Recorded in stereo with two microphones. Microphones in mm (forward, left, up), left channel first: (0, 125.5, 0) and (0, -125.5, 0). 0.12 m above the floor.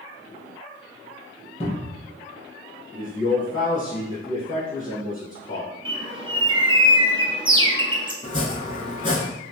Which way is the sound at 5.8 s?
20° right (ahead or behind).